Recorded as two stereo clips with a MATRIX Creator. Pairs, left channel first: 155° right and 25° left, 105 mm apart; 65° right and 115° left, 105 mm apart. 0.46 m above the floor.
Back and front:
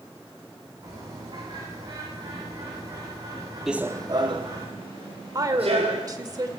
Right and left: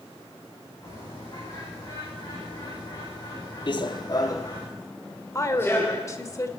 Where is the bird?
20° right, 6.5 m.